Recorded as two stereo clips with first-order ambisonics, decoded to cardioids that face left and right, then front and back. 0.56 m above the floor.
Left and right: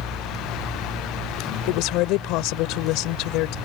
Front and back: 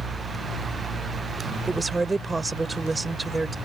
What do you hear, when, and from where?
1.7 s a woman speaking: 100° left